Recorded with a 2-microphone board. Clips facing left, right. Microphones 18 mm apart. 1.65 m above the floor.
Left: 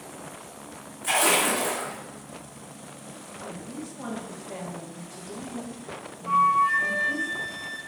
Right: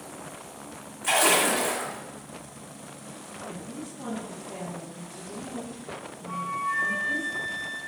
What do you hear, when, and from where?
1.0 s a splash: 20° right (ahead or behind), 1.6 m
3.4 s a woman speaking: 55° left (ahead or behind), 1.5 m
6.3 s a flute: 65° left (ahead or behind), 0.5 m